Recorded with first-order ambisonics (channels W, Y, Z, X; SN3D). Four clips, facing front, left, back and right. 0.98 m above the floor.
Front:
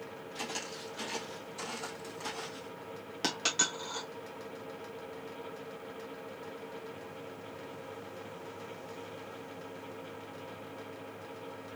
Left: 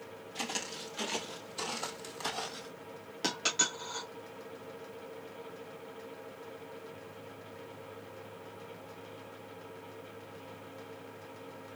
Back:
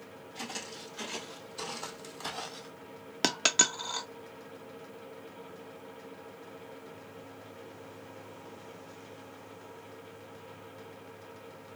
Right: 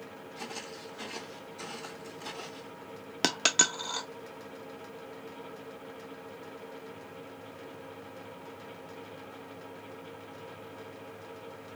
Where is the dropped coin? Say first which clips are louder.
Right 5 dB, back 5 dB; 130° right, 0.6 m.